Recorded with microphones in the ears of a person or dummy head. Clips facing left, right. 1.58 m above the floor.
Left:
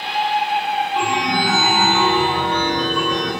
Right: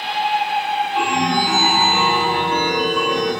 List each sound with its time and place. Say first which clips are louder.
0.9 s a chime: right 3 dB; 15° right (ahead or behind), 2 m